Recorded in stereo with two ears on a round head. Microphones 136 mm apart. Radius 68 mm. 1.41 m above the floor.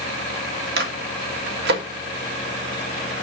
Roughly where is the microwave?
Right.